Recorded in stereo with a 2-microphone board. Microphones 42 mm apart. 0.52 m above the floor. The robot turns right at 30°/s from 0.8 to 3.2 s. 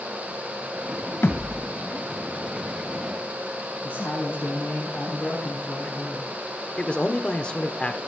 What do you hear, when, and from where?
1.2 s a thud: 85° left, 1.2 m; by 1.7 s 70° left (ahead or behind), 1.2 m
3.8 s a woman speaking: 55° left (ahead or behind), 4 m
6.8 s a man speaking: 25° left (ahead or behind), 1.1 m